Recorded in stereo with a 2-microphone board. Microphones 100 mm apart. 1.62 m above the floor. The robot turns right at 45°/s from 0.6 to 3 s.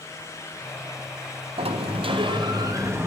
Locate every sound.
1.6 s a sliding door: 90° right, 0.5 m; by 3.1 s 25° right, 0.5 m